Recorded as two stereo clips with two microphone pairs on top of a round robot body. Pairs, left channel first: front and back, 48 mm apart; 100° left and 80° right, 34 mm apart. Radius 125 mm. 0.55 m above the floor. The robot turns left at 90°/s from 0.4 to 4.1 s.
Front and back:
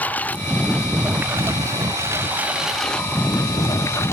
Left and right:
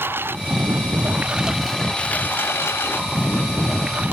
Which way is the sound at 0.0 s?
55° right.